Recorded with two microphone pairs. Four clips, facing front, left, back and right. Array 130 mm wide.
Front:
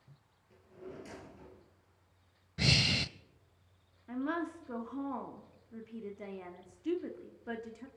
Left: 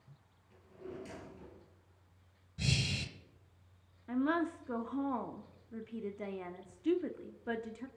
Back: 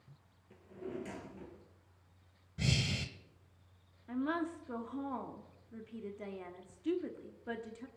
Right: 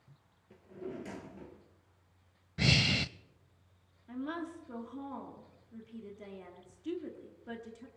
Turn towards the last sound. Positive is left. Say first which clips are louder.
# left 7 dB, even
turn(degrees=90)